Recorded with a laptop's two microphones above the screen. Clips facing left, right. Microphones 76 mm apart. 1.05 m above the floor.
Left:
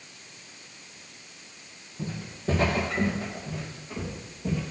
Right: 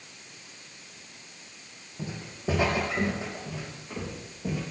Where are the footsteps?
15° right (ahead or behind), 2.5 m.